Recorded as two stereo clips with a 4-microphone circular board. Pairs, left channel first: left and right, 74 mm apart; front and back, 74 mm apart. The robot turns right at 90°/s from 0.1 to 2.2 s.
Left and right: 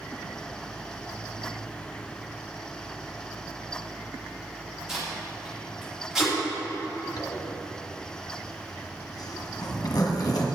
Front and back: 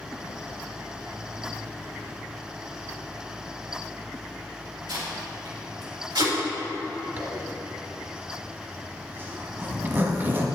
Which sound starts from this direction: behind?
Tape being pulled, at 4.9 s.